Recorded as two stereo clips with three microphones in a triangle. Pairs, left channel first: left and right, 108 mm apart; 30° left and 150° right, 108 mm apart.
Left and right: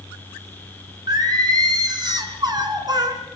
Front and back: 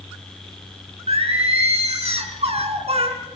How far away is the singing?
About 4.5 m.